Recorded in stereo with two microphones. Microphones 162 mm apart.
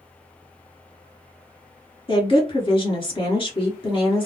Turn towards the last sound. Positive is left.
turn(degrees=30)  # may be behind; listen again after turning